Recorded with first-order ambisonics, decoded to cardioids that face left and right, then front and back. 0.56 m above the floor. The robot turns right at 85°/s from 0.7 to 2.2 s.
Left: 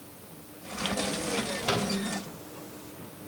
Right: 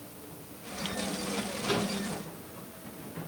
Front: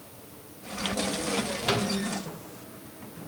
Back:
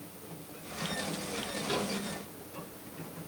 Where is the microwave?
30° left, 2.5 m; by 2.0 s 60° left, 2.5 m.